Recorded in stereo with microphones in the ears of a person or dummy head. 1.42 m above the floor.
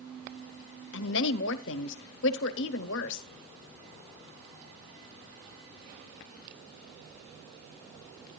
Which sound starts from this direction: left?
A woman speaking, at 0.9 s.